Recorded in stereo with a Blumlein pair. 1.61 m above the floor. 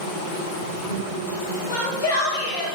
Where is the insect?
65° left, 1.5 m.